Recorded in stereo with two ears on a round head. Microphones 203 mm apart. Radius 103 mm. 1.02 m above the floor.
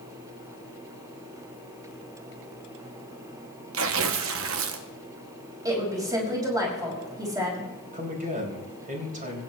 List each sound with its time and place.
3.7 s tearing paper: 60° right (ahead or behind), 0.8 m
5.7 s a woman speaking: 20° right (ahead or behind), 5 m
7.9 s a man speaking: 40° right (ahead or behind), 5 m